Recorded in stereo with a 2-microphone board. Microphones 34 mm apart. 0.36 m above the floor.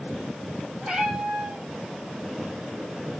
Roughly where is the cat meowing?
Right.